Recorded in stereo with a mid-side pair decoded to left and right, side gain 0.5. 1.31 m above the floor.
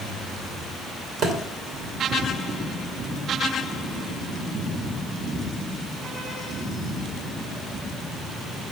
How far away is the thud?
About 2 m.